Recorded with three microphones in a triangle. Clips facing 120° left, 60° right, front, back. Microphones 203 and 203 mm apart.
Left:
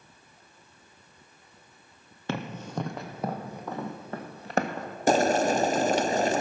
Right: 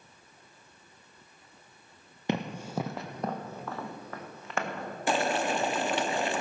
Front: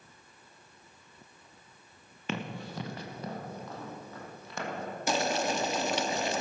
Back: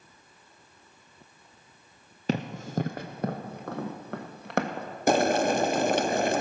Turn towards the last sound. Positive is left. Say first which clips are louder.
# left 6 dB, back 8 dB
turn(degrees=160)